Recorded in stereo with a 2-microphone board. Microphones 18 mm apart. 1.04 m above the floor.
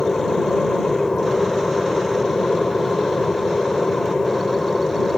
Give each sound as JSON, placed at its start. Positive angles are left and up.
{"t": 0.0, "sound": "an aircraft", "side_deg": 50}